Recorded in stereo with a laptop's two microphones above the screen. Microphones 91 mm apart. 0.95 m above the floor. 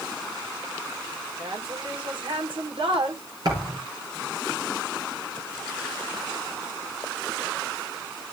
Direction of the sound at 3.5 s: 50° right (ahead or behind).